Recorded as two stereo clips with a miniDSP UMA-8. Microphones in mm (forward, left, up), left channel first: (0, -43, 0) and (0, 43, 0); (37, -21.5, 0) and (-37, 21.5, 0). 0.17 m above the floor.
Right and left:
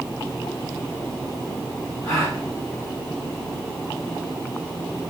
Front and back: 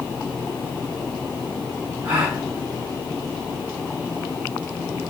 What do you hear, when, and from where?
2.0 s a gasp: 140° right, 4 m